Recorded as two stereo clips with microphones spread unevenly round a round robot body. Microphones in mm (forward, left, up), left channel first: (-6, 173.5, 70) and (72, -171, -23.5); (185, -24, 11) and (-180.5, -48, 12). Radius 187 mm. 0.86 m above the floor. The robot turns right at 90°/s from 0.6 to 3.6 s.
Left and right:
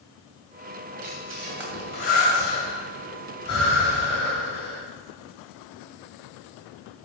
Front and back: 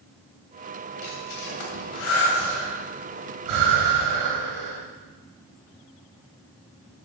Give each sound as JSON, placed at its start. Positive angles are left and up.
{"t": 1.0, "sound": "breathing", "azimuth_deg": -50, "distance_m": 2.5}